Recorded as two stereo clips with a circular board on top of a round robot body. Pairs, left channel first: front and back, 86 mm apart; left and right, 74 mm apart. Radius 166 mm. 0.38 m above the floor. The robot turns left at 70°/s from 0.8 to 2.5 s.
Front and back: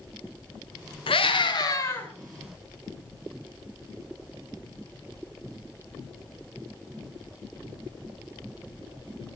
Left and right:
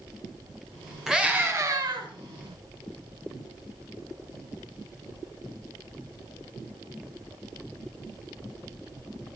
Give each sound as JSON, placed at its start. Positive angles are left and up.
{"t": 1.1, "sound": "a scream", "azimuth_deg": -5, "distance_m": 5.5}